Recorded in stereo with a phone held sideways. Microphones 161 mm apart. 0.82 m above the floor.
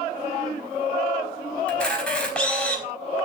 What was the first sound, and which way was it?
A camera shutter, 5° left (ahead or behind).